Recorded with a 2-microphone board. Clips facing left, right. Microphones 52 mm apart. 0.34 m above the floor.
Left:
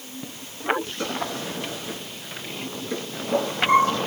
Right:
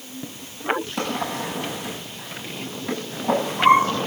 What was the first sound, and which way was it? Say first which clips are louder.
A drawer: right 3 dB; 75° right (ahead or behind).